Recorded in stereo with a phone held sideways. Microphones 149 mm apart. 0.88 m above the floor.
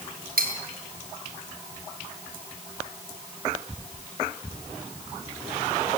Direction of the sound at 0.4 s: 75° right (ahead or behind).